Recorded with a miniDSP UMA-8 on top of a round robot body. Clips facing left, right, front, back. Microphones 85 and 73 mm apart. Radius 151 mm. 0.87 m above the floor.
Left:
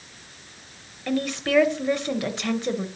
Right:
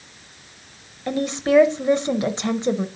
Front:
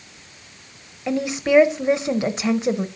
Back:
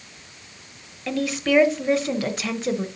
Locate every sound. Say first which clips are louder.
1.1 s a woman speaking: right 4 dB, front 3 dB; 50° right, 0.8 m